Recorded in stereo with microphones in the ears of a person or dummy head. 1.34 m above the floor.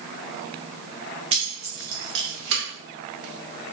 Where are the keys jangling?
30° right (ahead or behind), 0.6 m; by 2.6 s 70° right (ahead or behind), 1.2 m.